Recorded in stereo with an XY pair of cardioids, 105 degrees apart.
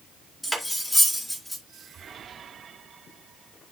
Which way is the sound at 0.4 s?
10° left.